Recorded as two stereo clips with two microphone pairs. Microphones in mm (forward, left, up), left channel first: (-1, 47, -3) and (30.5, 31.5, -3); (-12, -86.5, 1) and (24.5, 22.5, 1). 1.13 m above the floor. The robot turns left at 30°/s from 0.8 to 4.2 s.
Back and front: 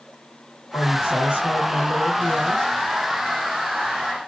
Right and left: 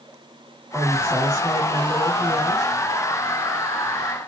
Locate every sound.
0.7 s a woman speaking: 165° left, 1.7 m; by 2.7 s 105° left, 1.7 m